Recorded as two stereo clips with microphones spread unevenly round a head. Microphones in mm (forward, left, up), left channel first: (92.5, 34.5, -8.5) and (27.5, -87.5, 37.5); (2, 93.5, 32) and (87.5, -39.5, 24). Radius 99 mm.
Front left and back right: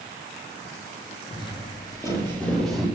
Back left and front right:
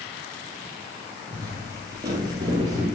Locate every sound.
1.3 s footsteps: 5° left, 2 m; by 2.9 s 105° right, 1.8 m